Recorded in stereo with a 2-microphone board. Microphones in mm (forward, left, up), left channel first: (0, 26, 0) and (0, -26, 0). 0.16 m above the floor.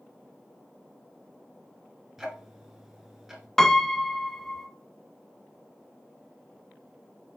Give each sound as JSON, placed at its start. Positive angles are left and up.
{"t": 2.2, "sound": "ticking", "side_deg": -10, "distance_m": 1.2}
{"t": 3.6, "sound": "a piano", "side_deg": 10, "distance_m": 0.5}